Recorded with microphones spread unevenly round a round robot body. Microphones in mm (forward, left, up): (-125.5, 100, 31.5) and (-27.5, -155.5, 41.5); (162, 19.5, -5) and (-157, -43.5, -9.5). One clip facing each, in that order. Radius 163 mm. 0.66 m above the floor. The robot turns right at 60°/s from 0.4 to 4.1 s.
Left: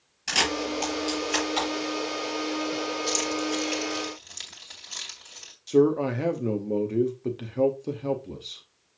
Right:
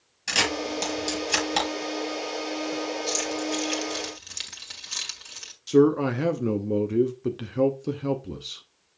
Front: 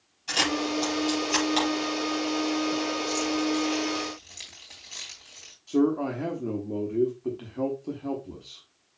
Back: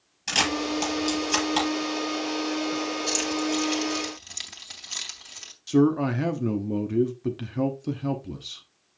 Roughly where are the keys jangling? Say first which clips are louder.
Left 1 dB, front 1 dB; behind.